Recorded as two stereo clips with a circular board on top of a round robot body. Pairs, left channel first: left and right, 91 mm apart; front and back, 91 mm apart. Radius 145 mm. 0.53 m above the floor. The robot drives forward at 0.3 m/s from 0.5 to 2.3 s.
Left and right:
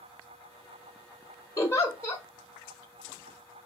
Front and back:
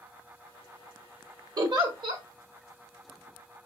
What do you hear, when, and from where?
1.6 s a giggle: 145° left, 1.2 m; by 2.2 s 150° left, 1.3 m